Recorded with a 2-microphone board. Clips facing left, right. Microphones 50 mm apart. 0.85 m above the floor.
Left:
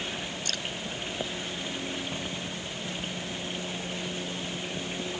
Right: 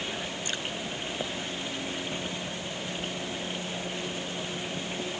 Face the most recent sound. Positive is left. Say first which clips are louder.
# right 1 dB
turn(degrees=-20)  # may be behind; listen again after turning